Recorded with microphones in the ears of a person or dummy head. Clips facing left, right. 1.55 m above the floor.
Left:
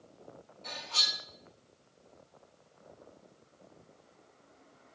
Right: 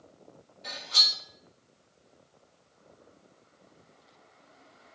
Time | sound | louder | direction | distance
0.6 | cutlery clinking | right 1 dB | 20° right (ahead or behind) | 1.1 m